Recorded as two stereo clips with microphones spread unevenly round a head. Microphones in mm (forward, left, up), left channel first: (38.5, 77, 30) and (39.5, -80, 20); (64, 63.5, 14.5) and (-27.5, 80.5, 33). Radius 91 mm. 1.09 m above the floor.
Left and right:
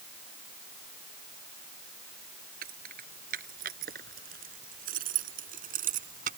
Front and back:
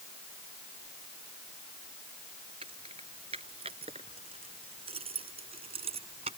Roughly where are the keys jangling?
Behind right.